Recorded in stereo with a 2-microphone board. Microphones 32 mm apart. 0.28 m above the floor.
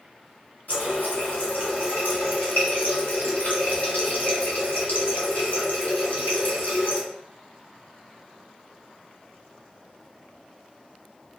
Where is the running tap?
65° left (ahead or behind), 1.6 m.